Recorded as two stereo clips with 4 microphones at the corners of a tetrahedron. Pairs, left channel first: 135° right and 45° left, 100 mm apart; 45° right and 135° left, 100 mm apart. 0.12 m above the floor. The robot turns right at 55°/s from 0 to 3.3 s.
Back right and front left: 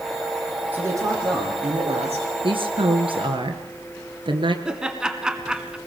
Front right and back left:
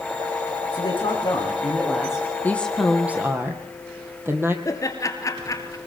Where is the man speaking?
25° right, 7 m; by 2.3 s 60° left, 7 m.